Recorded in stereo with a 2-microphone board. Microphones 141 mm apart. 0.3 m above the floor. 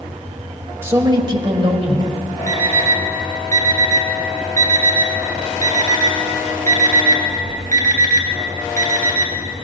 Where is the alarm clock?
70° right (ahead or behind), 3 m.